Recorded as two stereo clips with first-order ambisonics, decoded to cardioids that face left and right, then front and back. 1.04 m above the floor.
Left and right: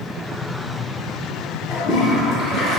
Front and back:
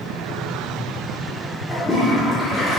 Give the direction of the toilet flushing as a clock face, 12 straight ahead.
10 o'clock.